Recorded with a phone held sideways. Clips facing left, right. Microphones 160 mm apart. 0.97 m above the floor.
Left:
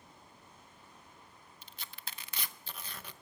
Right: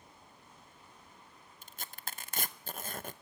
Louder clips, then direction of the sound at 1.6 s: Right 4 dB; 50° right (ahead or behind).